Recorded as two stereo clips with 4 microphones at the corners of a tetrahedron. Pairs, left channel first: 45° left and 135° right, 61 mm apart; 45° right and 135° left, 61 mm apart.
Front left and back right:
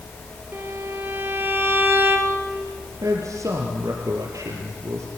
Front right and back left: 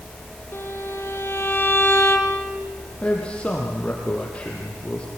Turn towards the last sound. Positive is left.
turn(degrees=-115)